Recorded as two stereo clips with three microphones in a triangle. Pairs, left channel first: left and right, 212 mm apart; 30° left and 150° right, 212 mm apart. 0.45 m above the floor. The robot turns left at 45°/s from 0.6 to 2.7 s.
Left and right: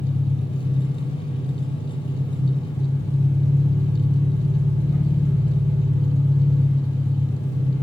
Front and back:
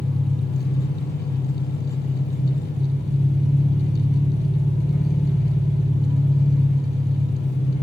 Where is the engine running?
120° left, 1.2 m; by 7.8 s 25° left, 1.2 m.